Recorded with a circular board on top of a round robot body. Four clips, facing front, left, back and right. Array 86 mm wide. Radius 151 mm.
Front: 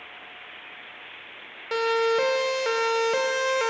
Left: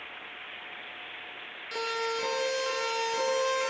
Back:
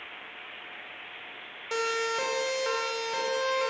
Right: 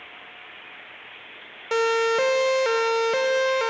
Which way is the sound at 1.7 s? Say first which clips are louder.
Right 11 dB, front 7 dB; 75° right.